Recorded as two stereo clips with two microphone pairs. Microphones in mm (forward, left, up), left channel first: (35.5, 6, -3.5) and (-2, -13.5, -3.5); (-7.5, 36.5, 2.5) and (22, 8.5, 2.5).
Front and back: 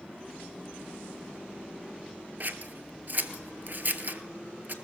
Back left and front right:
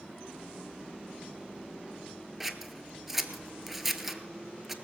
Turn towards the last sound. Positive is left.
turn(degrees=-125)